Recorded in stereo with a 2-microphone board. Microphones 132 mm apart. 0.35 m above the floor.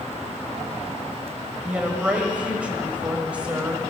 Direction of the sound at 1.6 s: 10° right (ahead or behind).